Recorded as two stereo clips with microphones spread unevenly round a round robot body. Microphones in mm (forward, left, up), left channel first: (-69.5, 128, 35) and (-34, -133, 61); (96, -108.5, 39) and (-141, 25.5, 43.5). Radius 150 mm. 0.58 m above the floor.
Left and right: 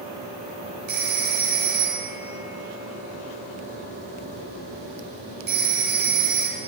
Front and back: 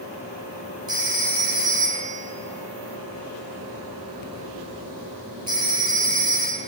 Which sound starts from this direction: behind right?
A phone ringing, at 0.9 s.